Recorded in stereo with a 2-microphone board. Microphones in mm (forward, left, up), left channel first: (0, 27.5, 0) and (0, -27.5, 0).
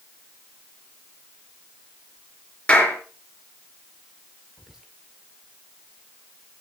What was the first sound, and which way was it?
A clap, 25° left (ahead or behind).